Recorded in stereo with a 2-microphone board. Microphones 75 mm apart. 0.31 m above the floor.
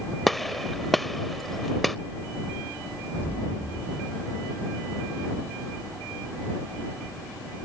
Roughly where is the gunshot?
Centre.